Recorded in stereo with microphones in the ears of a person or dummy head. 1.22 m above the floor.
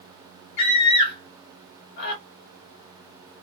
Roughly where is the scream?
Left.